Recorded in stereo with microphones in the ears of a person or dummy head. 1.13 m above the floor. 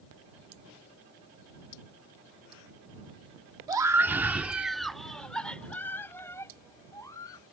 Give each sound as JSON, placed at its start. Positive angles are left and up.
{"t": 3.7, "sound": "a scream", "side_deg": -15}